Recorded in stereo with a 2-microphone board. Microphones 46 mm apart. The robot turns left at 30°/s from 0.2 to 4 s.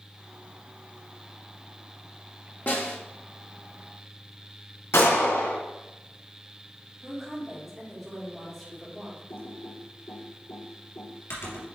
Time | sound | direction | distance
2.7 | a snare drum | 40° left (ahead or behind) | 1.4 m
4.9 | a gunshot | 85° left | 2 m
7.0 | a woman speaking | 5° left (ahead or behind) | 3 m
9.3 | typing on a keyboard | 80° left | 3 m